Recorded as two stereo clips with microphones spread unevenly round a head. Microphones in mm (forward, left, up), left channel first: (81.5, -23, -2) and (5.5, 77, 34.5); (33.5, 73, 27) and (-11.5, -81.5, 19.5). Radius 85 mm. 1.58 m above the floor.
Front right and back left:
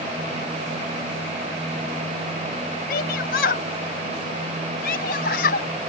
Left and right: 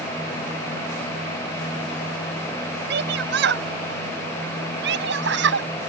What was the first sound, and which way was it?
A shout, 85° right.